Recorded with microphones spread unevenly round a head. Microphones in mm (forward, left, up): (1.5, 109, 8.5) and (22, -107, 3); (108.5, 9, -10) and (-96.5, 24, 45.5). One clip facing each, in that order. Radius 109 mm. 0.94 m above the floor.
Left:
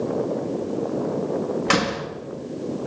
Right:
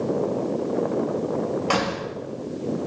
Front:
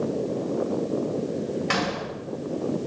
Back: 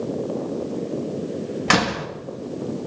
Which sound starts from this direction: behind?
A door slam, at 1.7 s.